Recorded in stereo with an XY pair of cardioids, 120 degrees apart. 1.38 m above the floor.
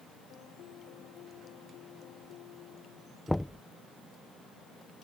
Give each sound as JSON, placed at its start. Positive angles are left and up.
{"t": 0.3, "sound": "a piano", "azimuth_deg": 70}
{"t": 3.3, "sound": "knocking", "azimuth_deg": 5}